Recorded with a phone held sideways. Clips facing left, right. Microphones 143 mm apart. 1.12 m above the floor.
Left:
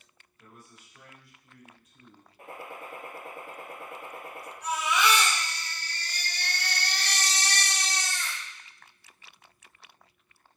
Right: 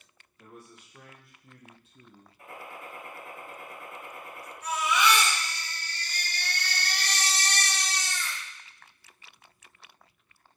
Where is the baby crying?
80° left, 1.8 m.